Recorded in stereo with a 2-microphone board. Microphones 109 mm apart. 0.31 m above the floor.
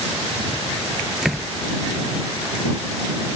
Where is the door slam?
5° right (ahead or behind).